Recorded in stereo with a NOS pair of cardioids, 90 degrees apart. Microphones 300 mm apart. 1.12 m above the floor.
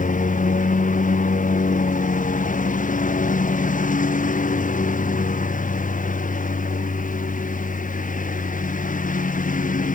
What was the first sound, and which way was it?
A lawn mower, 25° left.